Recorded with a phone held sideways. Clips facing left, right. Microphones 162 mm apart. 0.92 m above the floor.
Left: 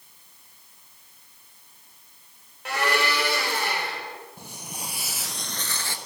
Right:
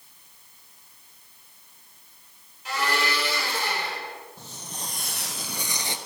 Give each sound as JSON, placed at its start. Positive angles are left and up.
{"t": 2.6, "sound": "a blender", "side_deg": 65, "distance_m": 3.0}
{"t": 4.4, "sound": "footsteps", "side_deg": 15, "distance_m": 1.9}